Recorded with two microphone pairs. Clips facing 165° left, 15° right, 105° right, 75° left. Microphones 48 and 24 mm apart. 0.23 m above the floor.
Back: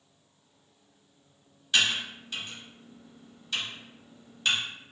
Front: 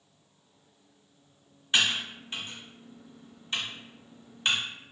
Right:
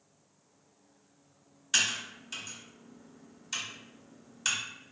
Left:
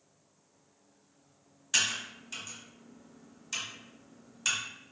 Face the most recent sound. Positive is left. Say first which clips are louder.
# even, right 1 dB
turn(degrees=-30)